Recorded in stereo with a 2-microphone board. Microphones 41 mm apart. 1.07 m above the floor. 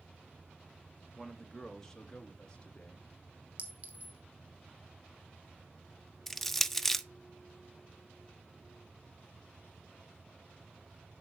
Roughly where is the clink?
Right.